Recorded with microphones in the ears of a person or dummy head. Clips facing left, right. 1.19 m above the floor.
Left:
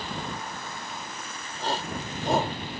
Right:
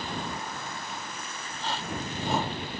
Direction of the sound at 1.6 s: 40° left (ahead or behind).